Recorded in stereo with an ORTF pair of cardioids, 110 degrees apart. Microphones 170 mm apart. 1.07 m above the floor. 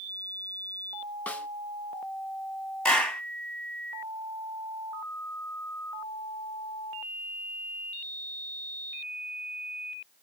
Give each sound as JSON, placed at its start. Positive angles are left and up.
{"t": 1.3, "sound": "a snare drum", "azimuth_deg": 10, "distance_m": 0.6}
{"t": 2.9, "sound": "a clap", "azimuth_deg": 5, "distance_m": 0.9}